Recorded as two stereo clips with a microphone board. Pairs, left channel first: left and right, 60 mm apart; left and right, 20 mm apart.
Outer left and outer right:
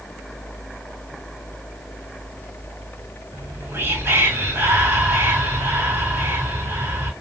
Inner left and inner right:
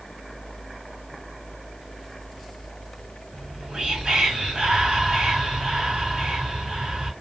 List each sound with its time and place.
3.3 s whispering: 45° right (ahead or behind), 3 m